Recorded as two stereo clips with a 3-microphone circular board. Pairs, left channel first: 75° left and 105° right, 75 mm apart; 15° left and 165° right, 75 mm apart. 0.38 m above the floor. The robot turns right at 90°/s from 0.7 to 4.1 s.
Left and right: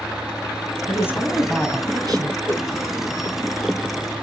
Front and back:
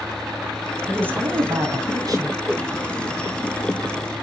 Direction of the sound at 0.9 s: 115° left.